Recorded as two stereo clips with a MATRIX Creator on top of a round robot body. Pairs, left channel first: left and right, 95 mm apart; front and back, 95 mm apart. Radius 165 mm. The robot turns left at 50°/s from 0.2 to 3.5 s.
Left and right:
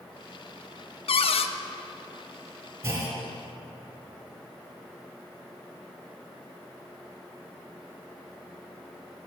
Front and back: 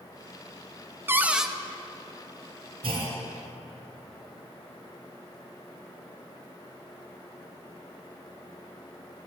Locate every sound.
1.1 s a cupboard door: 110° left, 0.7 m; by 1.5 s 90° left, 0.7 m
2.8 s a clunk: 155° right, 2.5 m; by 3.2 s 175° right, 2.5 m